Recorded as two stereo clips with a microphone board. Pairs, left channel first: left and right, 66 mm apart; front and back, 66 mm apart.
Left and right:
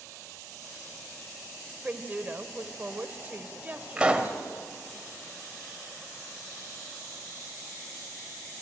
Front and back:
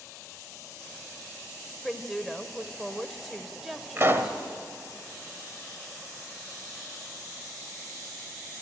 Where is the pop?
155° right, 1.5 m.